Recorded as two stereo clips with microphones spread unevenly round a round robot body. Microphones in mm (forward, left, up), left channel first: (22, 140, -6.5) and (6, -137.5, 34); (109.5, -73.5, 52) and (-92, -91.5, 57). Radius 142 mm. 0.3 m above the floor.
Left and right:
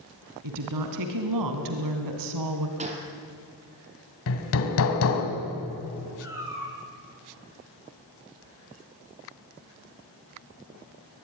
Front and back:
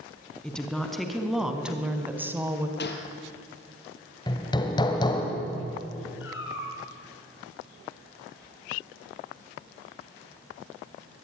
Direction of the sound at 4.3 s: 75° left.